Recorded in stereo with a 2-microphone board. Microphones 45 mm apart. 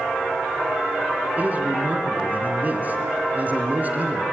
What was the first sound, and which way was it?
A man speaking, 35° right (ahead or behind).